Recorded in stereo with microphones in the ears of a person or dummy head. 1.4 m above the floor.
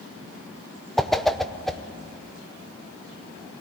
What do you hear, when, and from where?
1.0 s a whoosh: centre (ahead or behind), 0.8 m